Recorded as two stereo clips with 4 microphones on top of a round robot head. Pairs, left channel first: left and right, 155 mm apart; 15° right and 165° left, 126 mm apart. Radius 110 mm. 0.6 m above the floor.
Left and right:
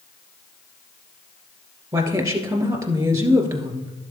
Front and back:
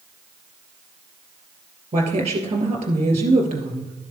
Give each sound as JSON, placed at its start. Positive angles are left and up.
{"t": 1.9, "sound": "a woman speaking", "azimuth_deg": -155, "distance_m": 2.5}